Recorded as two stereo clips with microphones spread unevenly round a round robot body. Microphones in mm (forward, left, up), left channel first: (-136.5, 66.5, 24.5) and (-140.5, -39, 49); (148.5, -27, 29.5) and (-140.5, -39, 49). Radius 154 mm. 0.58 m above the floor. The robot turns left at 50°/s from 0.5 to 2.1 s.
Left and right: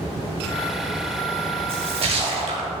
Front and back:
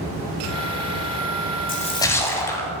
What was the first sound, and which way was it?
A splash, 60° right.